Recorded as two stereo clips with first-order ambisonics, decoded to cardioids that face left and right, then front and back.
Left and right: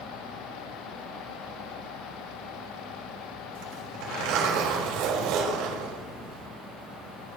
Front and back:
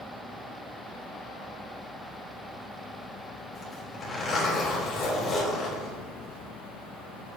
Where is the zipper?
75° right, 4 m.